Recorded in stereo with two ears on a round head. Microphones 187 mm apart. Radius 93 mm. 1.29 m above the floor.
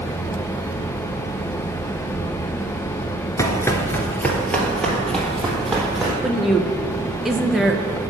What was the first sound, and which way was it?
Running footsteps, 15° left (ahead or behind).